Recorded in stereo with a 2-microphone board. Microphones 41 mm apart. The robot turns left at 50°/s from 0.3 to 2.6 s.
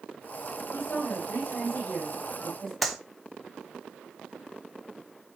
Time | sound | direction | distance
0.7 | a woman speaking | 90° left | 4 m
2.8 | a clap | centre (ahead or behind) | 1.1 m